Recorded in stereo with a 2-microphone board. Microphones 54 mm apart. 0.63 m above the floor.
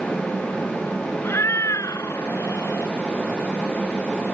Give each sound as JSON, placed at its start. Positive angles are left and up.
{"t": 1.2, "sound": "a cat meowing", "side_deg": 50}